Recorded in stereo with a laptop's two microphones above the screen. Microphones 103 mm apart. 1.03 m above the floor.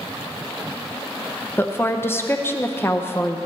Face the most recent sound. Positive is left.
turn(degrees=20)  # may be behind; listen again after turning